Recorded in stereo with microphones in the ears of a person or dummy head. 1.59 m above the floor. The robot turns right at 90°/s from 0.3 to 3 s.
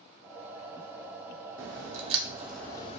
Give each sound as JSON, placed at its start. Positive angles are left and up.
{"t": 1.6, "sound": "a crack", "side_deg": -65, "distance_m": 0.5}